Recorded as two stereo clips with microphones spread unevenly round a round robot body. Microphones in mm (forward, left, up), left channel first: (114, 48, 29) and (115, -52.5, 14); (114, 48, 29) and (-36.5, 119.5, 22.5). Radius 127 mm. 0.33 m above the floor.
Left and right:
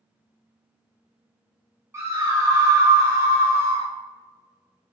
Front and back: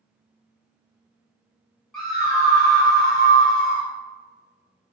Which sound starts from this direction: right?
A scream, at 1.9 s.